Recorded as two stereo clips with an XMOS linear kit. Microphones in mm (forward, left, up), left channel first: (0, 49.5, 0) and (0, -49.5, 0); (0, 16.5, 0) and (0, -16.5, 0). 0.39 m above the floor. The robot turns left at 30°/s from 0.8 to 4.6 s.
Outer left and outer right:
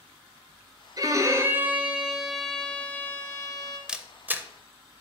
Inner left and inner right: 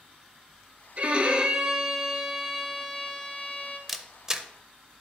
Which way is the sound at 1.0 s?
140° right.